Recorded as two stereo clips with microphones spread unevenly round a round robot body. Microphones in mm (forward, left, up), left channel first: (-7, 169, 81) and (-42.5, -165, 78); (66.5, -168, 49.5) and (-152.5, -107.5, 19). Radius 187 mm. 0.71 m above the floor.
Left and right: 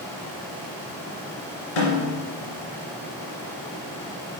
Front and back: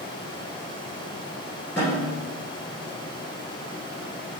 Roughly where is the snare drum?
Left.